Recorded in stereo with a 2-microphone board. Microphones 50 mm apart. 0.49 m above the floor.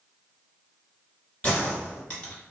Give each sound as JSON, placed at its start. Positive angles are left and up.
{"t": 1.4, "sound": "a gunshot", "side_deg": 25, "distance_m": 1.1}